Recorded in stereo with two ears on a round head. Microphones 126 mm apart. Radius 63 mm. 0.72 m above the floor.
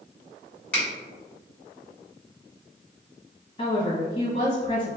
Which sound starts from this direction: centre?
A finger snap, at 0.7 s.